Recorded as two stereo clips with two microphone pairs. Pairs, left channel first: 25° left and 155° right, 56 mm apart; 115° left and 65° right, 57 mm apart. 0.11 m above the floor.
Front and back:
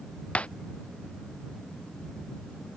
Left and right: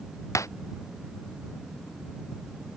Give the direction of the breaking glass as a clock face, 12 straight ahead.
9 o'clock.